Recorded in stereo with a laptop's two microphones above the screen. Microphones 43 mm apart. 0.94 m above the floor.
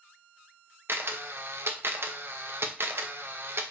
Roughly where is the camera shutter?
Right.